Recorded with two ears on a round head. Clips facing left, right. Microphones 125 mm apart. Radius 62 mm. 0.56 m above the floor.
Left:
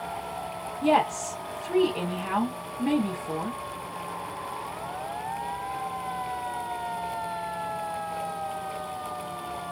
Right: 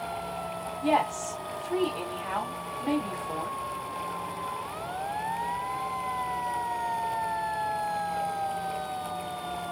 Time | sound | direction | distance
0.8 | a woman speaking | 70° left (ahead or behind) | 2 m